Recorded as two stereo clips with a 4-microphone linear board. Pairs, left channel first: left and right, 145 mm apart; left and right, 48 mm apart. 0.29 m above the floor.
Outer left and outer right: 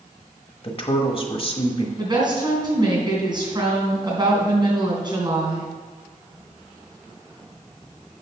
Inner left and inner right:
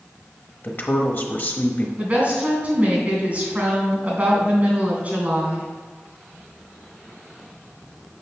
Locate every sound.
0.6 s a woman speaking: 40° left (ahead or behind), 1.1 m
2.0 s a woman speaking: 30° right (ahead or behind), 3 m